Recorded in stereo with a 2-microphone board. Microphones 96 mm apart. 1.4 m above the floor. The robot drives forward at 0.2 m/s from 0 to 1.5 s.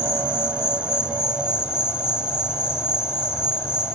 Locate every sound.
0.0 s an insect: 10° right (ahead or behind), 7 m